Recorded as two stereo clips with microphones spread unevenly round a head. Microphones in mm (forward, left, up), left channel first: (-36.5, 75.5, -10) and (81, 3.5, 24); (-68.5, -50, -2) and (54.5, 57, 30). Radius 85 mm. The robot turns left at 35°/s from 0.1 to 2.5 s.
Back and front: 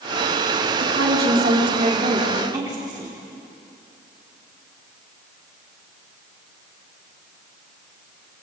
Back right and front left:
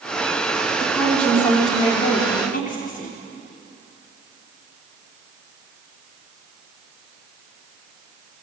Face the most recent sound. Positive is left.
turn(degrees=-100)